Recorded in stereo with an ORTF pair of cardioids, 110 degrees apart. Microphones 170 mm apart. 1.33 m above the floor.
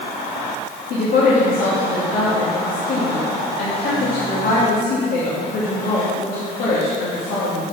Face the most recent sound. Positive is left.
turn(degrees=65)